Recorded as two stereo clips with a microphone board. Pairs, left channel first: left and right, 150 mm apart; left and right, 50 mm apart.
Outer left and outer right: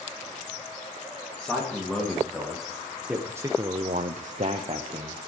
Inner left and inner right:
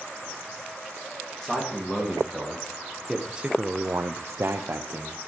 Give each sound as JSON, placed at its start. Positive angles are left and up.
{"t": 1.4, "sound": "a man speaking", "side_deg": 5, "distance_m": 3.0}